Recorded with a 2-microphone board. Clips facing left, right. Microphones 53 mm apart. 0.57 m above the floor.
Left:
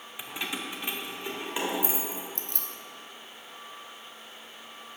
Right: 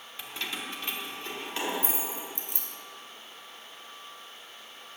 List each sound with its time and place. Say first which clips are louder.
0.2 s keys jangling: left 2 dB; 20° left (ahead or behind), 0.7 m; by 2.2 s 15° left (ahead or behind), 2 m
2.4 s keys jangling: left 2 dB; 10° right (ahead or behind), 0.8 m